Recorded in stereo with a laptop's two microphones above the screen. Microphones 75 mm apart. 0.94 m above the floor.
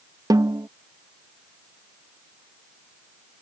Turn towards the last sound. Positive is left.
turn(degrees=-60)  # may be behind; listen again after turning